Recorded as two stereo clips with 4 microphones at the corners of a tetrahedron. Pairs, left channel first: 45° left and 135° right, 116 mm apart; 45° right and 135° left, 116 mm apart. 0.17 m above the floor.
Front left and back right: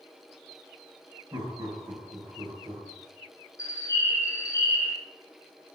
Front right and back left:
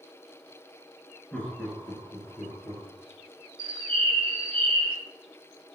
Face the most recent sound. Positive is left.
turn(degrees=105)